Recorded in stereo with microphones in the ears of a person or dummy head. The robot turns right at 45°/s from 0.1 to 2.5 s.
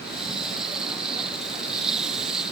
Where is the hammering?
I don't hear hammering.